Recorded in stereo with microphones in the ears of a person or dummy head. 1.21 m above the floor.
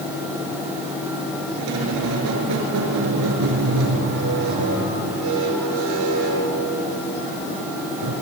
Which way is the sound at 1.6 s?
75° right (ahead or behind).